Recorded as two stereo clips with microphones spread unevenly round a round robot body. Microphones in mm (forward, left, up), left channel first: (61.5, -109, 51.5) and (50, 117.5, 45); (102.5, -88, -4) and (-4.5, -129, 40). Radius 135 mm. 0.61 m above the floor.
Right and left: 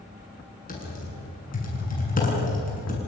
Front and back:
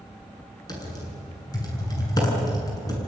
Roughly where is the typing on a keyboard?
Ahead right.